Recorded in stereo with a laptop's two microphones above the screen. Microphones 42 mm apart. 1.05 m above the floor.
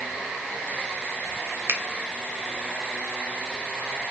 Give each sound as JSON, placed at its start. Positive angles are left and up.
{"t": 1.7, "sound": "a finger snap", "side_deg": -60, "distance_m": 0.7}